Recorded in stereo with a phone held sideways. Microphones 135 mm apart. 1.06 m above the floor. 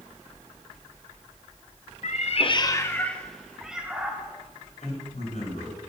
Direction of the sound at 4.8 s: 65° left (ahead or behind).